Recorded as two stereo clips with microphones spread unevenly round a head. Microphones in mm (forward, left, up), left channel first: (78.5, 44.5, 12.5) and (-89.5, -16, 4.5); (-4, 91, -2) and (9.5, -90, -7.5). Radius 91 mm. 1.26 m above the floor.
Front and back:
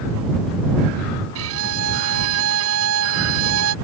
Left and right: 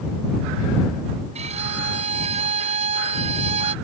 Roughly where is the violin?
Behind right.